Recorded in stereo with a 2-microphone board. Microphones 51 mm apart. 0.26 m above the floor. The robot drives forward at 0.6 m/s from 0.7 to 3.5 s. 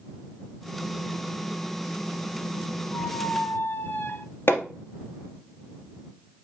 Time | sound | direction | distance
2.9 | a squeak | 45° left (ahead or behind) | 1.1 m
4.5 | hammering | 50° left (ahead or behind) | 1.7 m